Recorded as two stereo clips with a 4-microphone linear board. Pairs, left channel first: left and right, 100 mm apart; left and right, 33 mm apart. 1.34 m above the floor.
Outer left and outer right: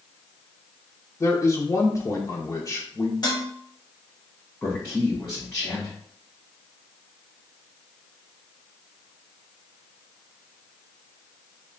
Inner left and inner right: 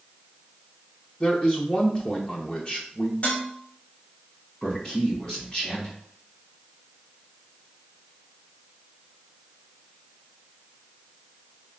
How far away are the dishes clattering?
About 1.4 m.